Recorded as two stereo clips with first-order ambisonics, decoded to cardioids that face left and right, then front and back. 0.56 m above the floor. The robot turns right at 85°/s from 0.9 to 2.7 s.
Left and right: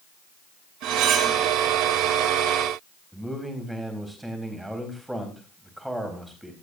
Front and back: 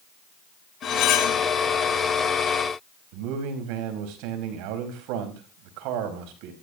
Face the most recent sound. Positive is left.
turn(degrees=-175)